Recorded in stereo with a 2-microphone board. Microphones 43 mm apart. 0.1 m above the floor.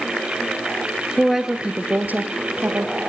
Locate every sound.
1.2 s a woman speaking: centre (ahead or behind), 1.5 m; by 2.9 s 60° right (ahead or behind), 3 m